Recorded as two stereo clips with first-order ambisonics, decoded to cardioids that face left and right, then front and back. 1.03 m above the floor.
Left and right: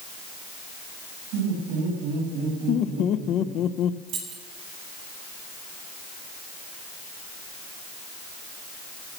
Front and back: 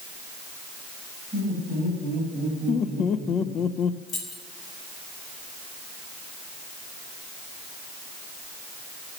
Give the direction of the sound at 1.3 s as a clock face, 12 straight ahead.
3 o'clock.